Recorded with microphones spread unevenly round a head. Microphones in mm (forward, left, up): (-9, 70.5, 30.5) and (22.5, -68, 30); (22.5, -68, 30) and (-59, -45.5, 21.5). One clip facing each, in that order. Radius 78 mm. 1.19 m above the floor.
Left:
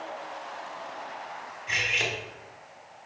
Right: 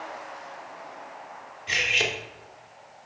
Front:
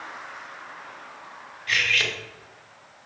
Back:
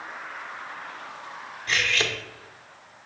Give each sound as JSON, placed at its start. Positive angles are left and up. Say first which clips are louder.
{"t": 1.7, "sound": "cutlery clinking", "louder": "right 3 dB, even", "azimuth_deg": -130, "distance_m": 0.9}